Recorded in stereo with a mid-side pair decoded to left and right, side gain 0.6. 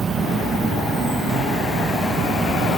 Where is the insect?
30° right, 0.8 m.